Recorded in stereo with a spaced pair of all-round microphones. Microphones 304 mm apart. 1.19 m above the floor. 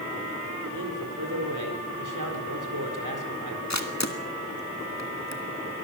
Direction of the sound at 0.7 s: 85° right.